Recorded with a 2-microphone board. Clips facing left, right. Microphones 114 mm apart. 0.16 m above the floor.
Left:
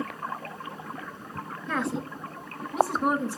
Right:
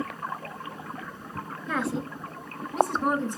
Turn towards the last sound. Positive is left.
turn(degrees=10)  # may be behind; listen again after turning